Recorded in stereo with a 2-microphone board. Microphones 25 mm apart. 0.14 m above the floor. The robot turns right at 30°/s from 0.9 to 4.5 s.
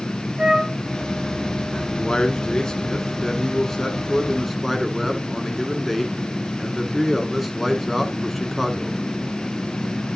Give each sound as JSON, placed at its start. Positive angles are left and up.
{"t": 0.4, "sound": "a flute", "side_deg": -45, "distance_m": 1.5}
{"t": 1.9, "sound": "a man speaking", "azimuth_deg": 95, "distance_m": 1.7}